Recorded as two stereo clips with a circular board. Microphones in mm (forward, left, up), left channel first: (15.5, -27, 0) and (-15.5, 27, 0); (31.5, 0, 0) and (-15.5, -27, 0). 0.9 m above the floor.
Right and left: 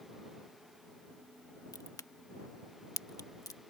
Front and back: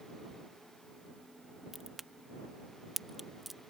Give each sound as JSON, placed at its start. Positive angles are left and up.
{"t": 1.7, "sound": "a crack", "azimuth_deg": -65}